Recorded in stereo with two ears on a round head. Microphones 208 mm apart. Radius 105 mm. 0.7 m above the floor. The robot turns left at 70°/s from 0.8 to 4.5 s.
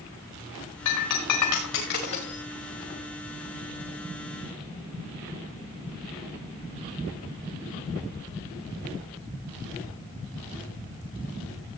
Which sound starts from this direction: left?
Breaking glass, at 0.8 s.